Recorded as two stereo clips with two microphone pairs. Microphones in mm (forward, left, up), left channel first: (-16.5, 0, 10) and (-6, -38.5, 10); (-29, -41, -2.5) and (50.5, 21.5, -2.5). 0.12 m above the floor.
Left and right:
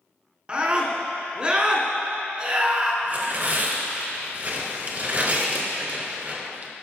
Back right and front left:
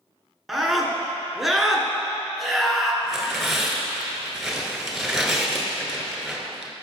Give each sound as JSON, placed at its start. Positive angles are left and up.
{"t": 0.5, "sound": "a scream", "azimuth_deg": -50, "distance_m": 1.3}
{"t": 3.0, "sound": "tearing paper", "azimuth_deg": -50, "distance_m": 1.3}